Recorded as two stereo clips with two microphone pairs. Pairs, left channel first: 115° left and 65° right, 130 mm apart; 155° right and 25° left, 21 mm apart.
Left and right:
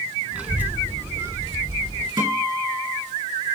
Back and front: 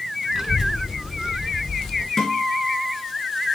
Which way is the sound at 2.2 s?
120° right.